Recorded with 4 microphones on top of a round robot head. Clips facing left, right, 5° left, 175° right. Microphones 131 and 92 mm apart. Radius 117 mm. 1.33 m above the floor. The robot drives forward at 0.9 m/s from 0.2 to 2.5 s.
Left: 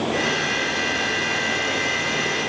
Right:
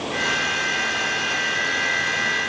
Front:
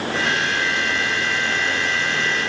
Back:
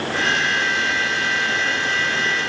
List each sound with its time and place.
Only background noise.